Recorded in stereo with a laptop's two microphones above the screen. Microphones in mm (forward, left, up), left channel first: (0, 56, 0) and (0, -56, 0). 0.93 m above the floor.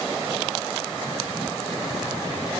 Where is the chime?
I don't hear a chime.